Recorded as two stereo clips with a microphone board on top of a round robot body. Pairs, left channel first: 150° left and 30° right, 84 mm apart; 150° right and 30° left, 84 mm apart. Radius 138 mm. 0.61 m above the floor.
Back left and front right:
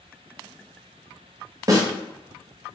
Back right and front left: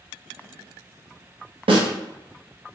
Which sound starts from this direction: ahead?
A snare drum, at 1.7 s.